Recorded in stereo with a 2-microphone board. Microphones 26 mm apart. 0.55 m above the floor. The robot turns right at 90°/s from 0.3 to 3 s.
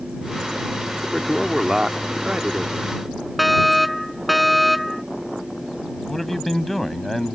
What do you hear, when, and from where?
1.0 s a man speaking: 155° left; by 3.0 s 35° right
3.4 s a fire alarm: centre (ahead or behind)
6.1 s a man speaking: 5° left (ahead or behind)